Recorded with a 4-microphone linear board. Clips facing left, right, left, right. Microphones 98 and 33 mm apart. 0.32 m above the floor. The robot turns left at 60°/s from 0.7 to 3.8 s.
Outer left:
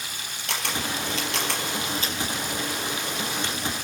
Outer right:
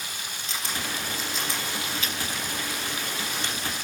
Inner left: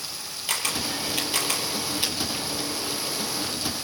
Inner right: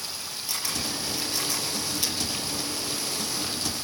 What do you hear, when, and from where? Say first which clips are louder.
0.5 s a camera shutter: outer left 4 dB, inner left 4 dB; 65° left (ahead or behind), 4.5 m; by 2.2 s 25° left (ahead or behind), 4.5 m